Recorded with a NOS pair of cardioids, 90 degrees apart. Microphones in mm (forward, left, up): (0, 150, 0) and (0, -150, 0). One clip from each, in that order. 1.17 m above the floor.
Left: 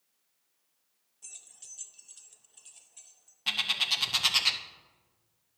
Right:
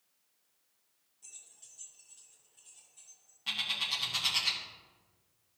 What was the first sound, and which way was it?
Keys jangling, 30° left.